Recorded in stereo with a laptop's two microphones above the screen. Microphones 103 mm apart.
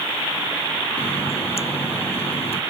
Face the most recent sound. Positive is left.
turn(degrees=90)